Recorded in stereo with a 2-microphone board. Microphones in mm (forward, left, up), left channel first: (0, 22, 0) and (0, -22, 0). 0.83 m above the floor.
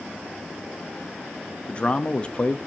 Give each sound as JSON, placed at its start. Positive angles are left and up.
{"t": 1.7, "sound": "a man speaking", "side_deg": 25, "distance_m": 0.6}